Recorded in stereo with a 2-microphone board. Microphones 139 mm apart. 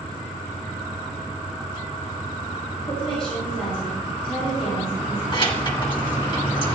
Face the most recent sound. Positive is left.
turn(degrees=35)  # may be behind; listen again after turning